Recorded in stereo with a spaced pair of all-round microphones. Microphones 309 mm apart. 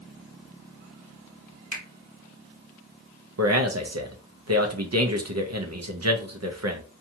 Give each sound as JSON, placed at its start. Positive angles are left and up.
{"t": 1.7, "sound": "a finger snap", "side_deg": -65, "distance_m": 1.3}
{"t": 3.4, "sound": "a man speaking", "side_deg": -55, "distance_m": 0.6}